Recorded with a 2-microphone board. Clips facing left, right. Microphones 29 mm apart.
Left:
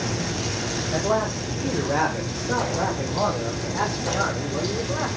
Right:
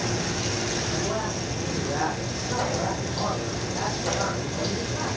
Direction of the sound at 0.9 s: 50° left (ahead or behind).